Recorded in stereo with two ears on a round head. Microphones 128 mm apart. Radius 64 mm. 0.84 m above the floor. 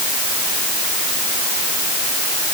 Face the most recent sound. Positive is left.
No sound to turn to.